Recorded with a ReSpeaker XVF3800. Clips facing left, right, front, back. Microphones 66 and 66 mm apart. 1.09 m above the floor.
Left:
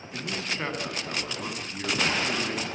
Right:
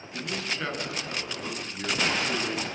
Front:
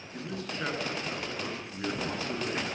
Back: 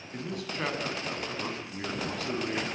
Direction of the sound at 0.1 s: 150° left.